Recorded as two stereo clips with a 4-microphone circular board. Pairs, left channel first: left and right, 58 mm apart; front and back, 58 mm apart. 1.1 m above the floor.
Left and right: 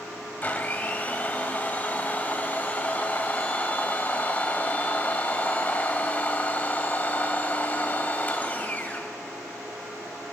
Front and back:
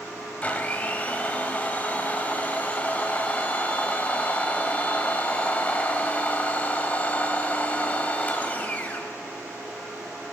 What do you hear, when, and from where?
0.4 s a blender: 50° left, 1.1 m